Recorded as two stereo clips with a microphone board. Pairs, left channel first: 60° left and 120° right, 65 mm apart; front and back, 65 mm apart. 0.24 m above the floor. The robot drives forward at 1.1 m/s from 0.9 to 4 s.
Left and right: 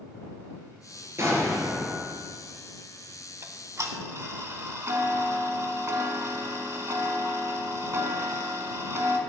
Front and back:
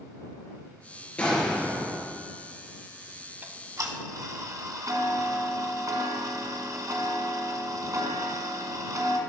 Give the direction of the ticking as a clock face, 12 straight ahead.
4 o'clock.